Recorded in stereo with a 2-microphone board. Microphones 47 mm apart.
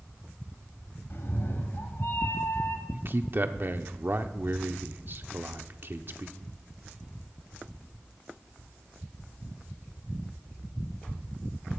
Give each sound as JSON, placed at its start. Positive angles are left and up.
{"t": 1.1, "sound": "a cat meowing", "side_deg": 55, "distance_m": 1.7}
{"t": 2.9, "sound": "a man speaking", "side_deg": -50, "distance_m": 1.0}